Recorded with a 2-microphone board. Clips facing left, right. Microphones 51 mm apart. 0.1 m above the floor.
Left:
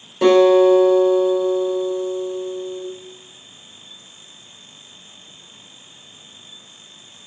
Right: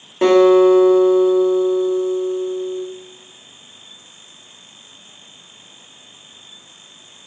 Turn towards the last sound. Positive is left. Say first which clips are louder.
# right 1 dB
turn(degrees=-25)  # may be behind; listen again after turning